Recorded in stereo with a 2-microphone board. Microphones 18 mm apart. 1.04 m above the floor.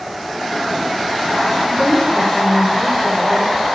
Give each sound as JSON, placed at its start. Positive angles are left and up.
{"t": 1.7, "sound": "a woman speaking", "side_deg": 25, "distance_m": 4.5}